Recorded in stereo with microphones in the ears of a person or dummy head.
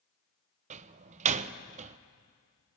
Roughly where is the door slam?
Right.